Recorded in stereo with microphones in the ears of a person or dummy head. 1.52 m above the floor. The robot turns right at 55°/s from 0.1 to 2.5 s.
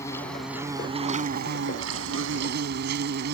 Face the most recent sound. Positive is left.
turn(degrees=-65)